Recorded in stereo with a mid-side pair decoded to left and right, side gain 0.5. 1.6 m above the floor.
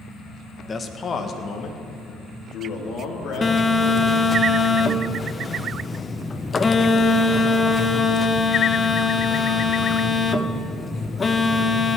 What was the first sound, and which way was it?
A man speaking, 25° left.